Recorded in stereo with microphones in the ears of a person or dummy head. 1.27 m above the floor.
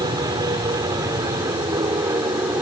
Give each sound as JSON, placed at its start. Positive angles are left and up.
{"t": 0.0, "sound": "an aircraft", "side_deg": -25}